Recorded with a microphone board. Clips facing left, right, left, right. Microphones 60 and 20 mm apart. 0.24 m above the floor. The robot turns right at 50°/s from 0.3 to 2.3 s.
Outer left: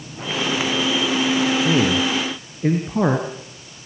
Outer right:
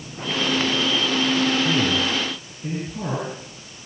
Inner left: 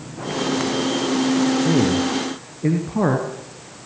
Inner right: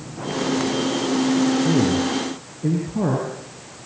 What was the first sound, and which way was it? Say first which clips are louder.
A man speaking: outer left 3 dB, inner left 1 dB; 30° left (ahead or behind).